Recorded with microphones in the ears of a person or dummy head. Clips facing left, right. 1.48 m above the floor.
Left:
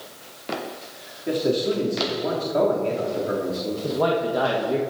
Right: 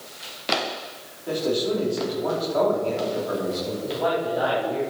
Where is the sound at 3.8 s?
75° left (ahead or behind), 1.7 m.